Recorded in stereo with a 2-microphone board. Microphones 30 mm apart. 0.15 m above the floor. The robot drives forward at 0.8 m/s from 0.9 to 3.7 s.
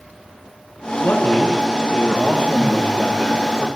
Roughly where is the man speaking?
Left.